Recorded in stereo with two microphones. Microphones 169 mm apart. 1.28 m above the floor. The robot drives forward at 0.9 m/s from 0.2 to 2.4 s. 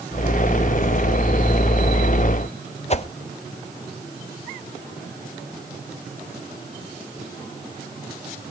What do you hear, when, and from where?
2.9 s a whoosh: 40° left (ahead or behind), 0.6 m